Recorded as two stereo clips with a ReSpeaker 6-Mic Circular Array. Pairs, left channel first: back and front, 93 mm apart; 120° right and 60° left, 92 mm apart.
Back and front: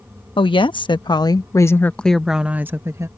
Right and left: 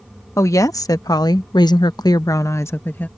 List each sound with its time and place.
0.4 s a woman speaking: 175° right; by 3.1 s 50° right